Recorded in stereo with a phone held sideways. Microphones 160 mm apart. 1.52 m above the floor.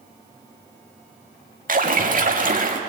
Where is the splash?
60° right (ahead or behind), 1.8 m.